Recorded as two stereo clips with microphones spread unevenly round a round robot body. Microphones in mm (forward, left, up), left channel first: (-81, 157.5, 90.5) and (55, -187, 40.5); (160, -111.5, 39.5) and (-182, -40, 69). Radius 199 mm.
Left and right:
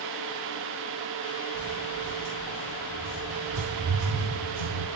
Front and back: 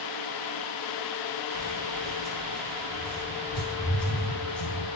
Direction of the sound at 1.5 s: 45° right.